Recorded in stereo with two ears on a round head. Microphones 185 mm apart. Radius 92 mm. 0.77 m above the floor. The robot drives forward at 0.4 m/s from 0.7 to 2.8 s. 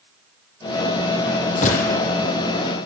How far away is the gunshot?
About 4.5 m.